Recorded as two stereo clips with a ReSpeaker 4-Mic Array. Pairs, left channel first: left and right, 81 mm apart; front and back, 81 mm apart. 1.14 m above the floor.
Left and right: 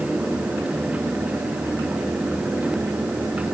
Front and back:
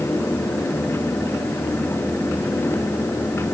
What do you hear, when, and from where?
Only background noise.